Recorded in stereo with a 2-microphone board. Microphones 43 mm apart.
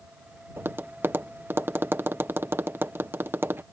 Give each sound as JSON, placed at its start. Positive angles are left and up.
{"t": 0.6, "sound": "tapping", "side_deg": -55}